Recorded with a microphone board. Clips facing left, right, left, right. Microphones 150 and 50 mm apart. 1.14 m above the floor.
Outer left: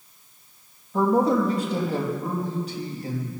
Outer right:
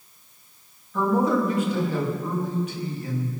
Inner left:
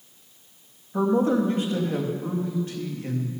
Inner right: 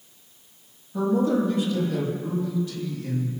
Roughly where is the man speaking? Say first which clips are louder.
Outer left 2 dB, inner left 1 dB; left.